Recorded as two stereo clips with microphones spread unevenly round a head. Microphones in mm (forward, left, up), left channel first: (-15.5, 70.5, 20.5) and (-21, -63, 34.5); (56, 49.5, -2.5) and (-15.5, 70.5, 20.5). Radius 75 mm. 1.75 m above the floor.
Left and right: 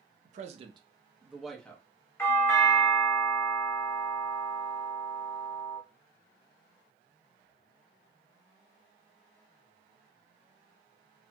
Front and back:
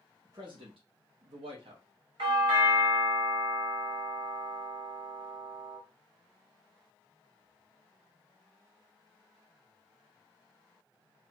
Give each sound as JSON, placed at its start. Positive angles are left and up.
{"t": 0.2, "sound": "a man speaking", "azimuth_deg": -125, "distance_m": 0.5}
{"t": 2.2, "sound": "a doorbell", "azimuth_deg": 165, "distance_m": 1.6}